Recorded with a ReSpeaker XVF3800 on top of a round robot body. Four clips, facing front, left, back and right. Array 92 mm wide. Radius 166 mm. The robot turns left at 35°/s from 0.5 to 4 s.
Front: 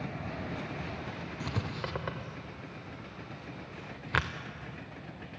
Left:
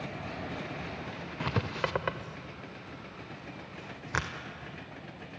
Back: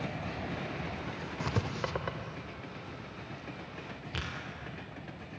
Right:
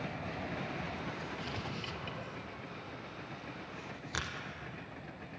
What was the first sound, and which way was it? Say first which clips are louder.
Writing: left 8 dB, back 3 dB; 115° left.